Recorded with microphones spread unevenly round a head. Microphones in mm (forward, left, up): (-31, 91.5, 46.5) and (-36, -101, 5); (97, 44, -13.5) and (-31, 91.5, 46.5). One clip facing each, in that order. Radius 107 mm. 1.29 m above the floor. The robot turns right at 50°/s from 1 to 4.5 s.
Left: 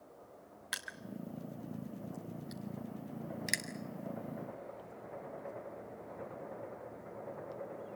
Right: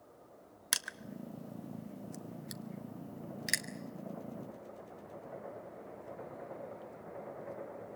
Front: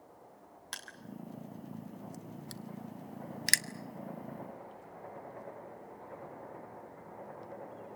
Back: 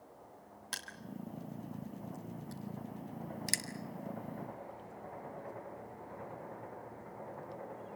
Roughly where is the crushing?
Behind right.